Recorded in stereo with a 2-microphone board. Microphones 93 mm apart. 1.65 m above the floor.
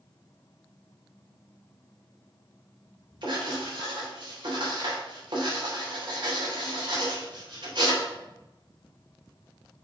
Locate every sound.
3.2 s writing: 60° right (ahead or behind), 3 m